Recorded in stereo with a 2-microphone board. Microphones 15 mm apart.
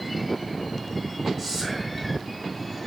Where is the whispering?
5° left (ahead or behind), 2.5 m.